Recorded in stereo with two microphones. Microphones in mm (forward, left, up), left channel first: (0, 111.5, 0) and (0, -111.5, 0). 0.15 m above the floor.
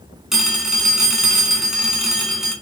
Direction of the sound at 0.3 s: Centre (ahead or behind).